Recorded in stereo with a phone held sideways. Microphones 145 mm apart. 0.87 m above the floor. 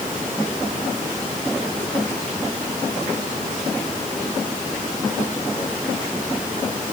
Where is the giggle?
No giggle in this recording.